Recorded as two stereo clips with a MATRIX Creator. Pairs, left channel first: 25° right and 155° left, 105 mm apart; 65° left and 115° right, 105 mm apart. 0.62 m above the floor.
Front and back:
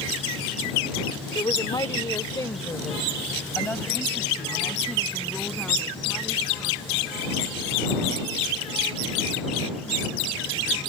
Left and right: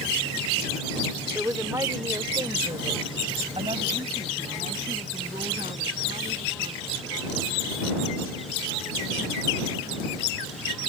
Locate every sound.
1.4 s a woman speaking: 50° right; by 7.2 s 105° right